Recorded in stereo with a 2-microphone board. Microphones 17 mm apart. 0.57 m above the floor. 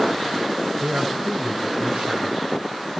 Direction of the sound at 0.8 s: 75° right (ahead or behind).